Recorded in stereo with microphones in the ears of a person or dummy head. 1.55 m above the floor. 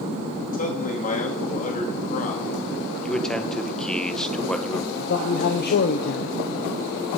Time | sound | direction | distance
0.5 | a man speaking | 45° left (ahead or behind) | 2.0 m
3.0 | a man speaking | 5° left (ahead or behind) | 1.0 m
5.0 | a man speaking | 55° left (ahead or behind) | 0.6 m